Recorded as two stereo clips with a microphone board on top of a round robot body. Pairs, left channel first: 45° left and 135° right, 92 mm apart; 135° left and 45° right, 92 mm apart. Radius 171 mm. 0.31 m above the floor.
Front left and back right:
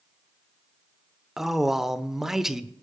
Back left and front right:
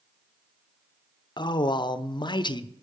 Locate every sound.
1.4 s a man speaking: 140° left, 1.2 m